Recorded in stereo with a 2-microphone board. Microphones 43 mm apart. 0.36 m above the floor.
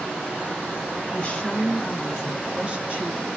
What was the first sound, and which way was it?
A woman speaking, 20° left (ahead or behind).